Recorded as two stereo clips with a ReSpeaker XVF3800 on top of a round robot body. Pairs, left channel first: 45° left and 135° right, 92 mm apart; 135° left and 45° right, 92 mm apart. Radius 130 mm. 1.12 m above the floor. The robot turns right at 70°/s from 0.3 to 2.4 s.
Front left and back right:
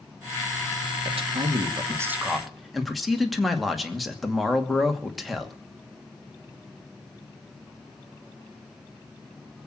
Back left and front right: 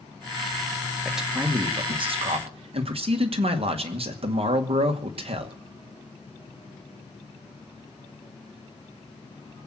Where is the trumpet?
No trumpet in this recording.